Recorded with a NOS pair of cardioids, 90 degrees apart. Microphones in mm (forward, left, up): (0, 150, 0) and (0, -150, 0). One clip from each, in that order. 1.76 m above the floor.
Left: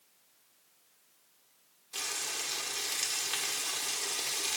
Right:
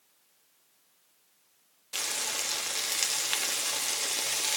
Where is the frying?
55° right, 1.2 m.